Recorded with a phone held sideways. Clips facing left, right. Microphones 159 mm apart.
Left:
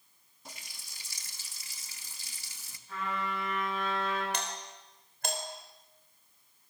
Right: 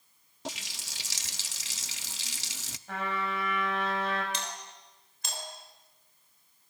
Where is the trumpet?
70° right (ahead or behind), 6.5 m.